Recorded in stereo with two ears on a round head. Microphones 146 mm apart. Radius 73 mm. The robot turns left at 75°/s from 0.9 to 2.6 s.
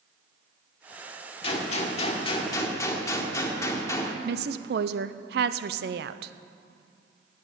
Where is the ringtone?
I don't hear a ringtone.